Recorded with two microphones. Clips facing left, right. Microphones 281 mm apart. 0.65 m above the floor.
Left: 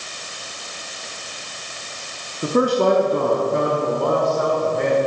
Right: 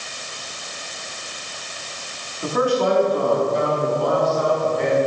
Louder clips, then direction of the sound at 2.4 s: Left 2 dB; 35° left (ahead or behind).